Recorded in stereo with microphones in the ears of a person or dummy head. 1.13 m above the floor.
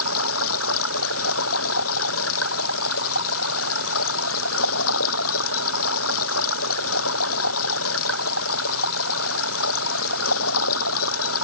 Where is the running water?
90° left.